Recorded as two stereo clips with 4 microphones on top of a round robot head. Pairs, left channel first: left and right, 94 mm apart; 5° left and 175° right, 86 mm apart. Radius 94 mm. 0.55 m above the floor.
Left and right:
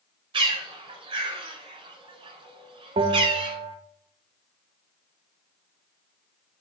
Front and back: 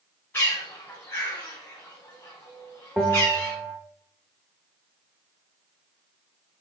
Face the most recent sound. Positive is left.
turn(degrees=-85)